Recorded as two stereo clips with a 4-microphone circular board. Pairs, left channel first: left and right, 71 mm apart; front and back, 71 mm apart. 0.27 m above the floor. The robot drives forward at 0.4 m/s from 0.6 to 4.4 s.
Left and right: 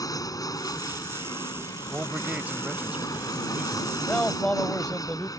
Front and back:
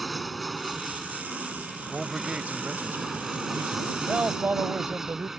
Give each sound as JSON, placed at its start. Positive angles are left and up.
{"t": 0.0, "sound": "an aircraft", "azimuth_deg": 90}
{"t": 1.9, "sound": "a man speaking", "azimuth_deg": -105}
{"t": 4.0, "sound": "a man speaking", "azimuth_deg": 130}